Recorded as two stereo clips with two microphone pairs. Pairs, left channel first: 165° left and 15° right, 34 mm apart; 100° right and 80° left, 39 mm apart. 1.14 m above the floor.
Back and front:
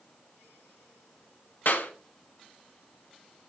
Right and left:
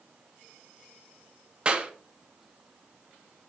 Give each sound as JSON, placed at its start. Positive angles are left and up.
{"t": 1.6, "sound": "a clap", "azimuth_deg": 145, "distance_m": 1.3}